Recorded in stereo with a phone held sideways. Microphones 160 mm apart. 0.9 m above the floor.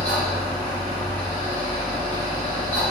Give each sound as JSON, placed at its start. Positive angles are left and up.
{"t": 0.0, "sound": "a fan", "side_deg": 10, "distance_m": 1.2}